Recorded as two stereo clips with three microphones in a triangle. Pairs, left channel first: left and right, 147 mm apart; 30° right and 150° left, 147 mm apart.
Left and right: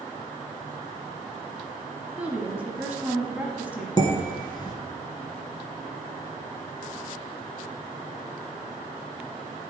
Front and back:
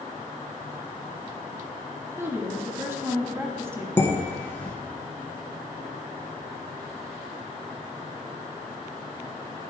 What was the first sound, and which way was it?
A woman speaking, 155° right.